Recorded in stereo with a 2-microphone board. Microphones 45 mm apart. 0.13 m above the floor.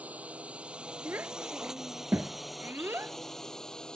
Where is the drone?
35° right (ahead or behind); by 4.0 s 15° left (ahead or behind).